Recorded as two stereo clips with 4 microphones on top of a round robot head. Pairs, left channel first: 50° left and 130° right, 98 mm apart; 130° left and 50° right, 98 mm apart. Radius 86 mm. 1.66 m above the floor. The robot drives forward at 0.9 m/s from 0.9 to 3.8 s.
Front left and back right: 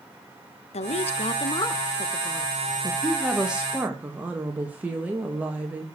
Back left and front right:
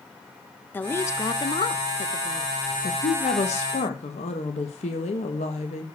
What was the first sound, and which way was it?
A woman speaking, 60° left.